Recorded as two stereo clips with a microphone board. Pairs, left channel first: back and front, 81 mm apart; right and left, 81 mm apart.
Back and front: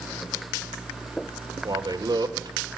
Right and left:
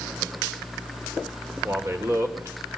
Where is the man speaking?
30° left, 3.5 m.